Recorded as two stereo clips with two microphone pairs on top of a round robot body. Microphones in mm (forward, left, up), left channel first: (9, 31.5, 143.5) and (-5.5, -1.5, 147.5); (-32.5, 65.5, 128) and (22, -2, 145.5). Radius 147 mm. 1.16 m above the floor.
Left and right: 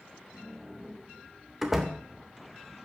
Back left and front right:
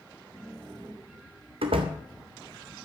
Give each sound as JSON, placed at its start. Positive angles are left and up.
{"t": 1.6, "sound": "a door slam", "azimuth_deg": -35, "distance_m": 0.7}